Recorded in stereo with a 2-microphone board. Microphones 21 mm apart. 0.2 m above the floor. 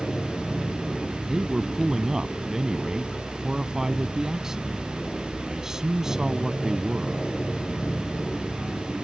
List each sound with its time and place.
0.0 s an aircraft: 40° left (ahead or behind)
1.3 s a man speaking: 30° right (ahead or behind)